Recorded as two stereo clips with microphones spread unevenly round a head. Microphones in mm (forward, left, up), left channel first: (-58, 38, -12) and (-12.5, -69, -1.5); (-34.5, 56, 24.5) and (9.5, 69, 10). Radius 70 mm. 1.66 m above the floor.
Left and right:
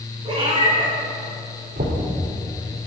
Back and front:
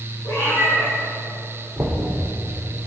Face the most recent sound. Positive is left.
turn(degrees=-55)